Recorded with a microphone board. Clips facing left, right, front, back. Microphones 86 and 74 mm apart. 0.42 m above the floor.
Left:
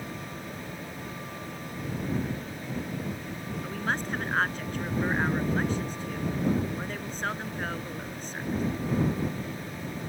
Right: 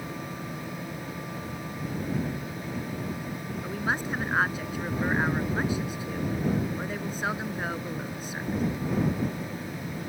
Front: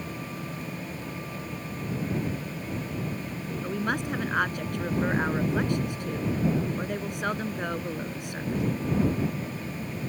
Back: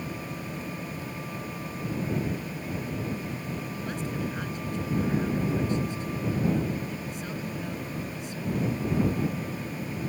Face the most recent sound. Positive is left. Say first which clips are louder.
# right 1 dB, front 5 dB
turn(degrees=-10)